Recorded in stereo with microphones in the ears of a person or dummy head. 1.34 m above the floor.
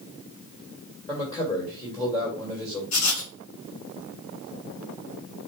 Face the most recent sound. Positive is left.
turn(degrees=75)  # may be behind; listen again after turning